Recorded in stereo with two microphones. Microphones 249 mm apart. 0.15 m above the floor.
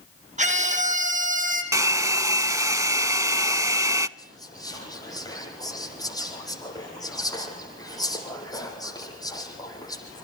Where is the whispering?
15° left (ahead or behind), 8 m.